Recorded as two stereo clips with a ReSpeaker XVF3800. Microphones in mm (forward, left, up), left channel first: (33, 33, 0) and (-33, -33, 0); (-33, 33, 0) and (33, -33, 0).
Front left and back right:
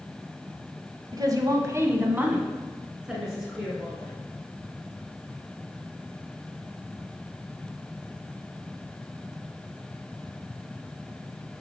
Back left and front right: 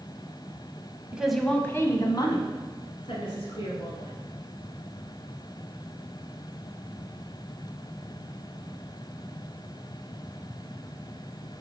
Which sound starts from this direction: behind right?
A woman speaking, at 1.1 s.